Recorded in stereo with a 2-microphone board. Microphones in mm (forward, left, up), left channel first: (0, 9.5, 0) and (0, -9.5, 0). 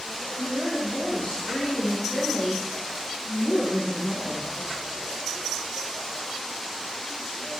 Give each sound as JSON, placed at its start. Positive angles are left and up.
{"t": 0.4, "sound": "a woman speaking", "side_deg": 55, "distance_m": 6.0}